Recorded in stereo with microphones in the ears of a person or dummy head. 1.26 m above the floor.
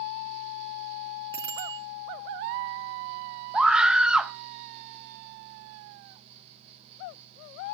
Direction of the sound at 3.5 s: Centre (ahead or behind).